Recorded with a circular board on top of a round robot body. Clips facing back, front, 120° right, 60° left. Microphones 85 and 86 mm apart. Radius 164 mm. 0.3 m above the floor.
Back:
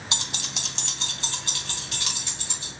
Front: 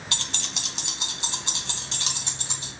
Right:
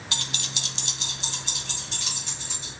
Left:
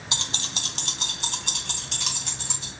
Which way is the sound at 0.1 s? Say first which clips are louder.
Back 1 dB, left 2 dB; 120° left.